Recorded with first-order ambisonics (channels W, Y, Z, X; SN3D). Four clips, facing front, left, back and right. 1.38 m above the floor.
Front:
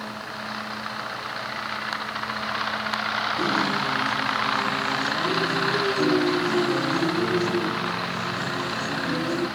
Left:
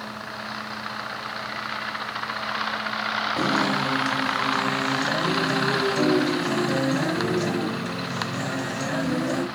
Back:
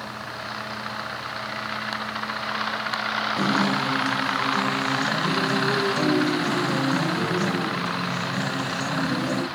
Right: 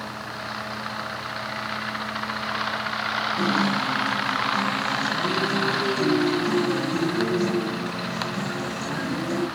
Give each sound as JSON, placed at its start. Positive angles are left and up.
{"t": 3.4, "sound": "a guitar", "azimuth_deg": 110, "distance_m": 3.5}